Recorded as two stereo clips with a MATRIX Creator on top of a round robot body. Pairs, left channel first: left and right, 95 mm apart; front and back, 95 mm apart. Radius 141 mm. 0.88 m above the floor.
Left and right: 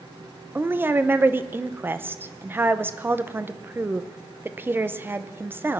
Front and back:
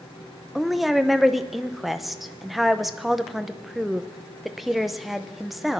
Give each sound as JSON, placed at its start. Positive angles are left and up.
{"t": 0.6, "sound": "a woman speaking", "azimuth_deg": -95, "distance_m": 0.9}